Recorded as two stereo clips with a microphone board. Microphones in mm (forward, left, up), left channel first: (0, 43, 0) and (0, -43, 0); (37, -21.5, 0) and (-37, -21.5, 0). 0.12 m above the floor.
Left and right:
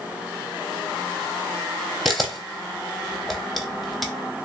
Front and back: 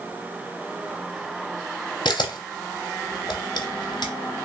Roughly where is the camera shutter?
Ahead.